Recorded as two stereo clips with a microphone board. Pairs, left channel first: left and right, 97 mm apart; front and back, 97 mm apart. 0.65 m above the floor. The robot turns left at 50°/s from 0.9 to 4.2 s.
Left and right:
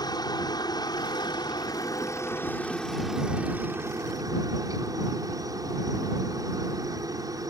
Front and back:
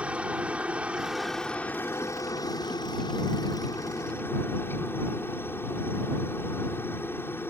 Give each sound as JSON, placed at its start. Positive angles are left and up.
{"t": 0.0, "sound": "a helicopter", "azimuth_deg": 105}